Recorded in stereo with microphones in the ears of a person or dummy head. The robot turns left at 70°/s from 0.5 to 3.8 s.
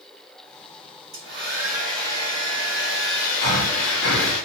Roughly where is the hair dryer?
Behind right.